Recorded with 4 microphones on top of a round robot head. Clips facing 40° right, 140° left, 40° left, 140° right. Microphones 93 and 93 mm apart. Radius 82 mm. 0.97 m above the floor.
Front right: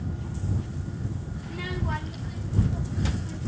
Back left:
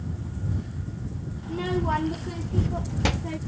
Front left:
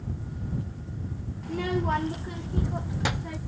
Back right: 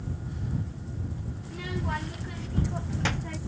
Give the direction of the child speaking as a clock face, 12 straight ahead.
9 o'clock.